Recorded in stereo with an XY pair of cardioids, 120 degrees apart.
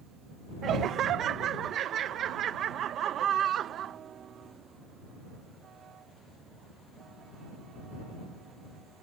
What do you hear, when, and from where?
0.6 s laughter: 60° right